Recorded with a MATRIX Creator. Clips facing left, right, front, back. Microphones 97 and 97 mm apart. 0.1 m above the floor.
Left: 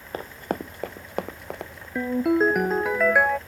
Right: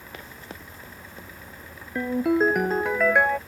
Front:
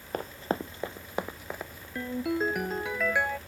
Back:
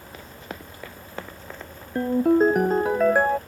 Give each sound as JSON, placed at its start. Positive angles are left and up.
{"t": 0.1, "sound": "running footsteps", "azimuth_deg": 40}
{"t": 1.9, "sound": "a ringtone", "azimuth_deg": 175}